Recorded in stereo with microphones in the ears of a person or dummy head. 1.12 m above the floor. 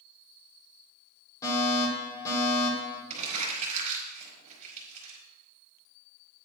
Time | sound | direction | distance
1.4 | a fire alarm | 20° left (ahead or behind) | 7 m
3.1 | crumpling | 45° right (ahead or behind) | 5.5 m